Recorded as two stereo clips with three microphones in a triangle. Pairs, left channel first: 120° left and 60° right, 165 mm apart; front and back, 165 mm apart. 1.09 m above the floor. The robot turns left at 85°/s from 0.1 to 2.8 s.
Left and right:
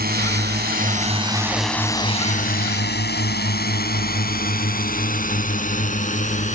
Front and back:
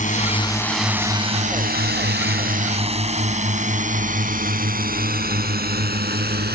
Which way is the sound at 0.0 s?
40° right.